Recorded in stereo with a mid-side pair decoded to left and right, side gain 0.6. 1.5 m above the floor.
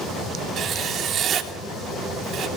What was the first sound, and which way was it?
Writing, 45° right.